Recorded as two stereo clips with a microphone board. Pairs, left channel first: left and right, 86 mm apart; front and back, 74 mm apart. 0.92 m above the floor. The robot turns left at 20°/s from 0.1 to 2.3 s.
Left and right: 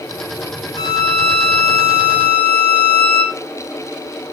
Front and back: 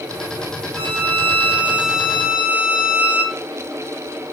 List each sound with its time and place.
0.8 s a violin: 130° left, 1.8 m; by 3.4 s 100° left, 1.8 m